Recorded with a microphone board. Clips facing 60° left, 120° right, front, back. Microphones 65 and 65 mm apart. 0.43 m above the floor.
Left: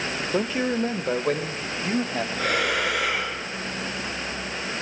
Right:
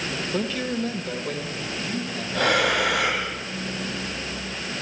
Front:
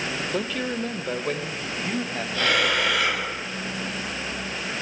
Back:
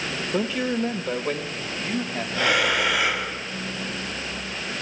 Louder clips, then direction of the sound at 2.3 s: Right 5 dB, back 1 dB; 100° right.